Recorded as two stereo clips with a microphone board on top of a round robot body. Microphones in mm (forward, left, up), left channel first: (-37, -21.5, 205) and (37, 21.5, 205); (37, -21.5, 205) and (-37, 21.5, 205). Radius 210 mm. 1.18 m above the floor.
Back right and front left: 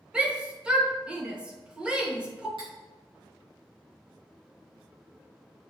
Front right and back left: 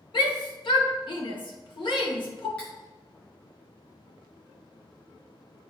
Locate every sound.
0.1 s a shout: 45° right, 1.8 m
2.6 s cutlery clinking: 45° left, 2.5 m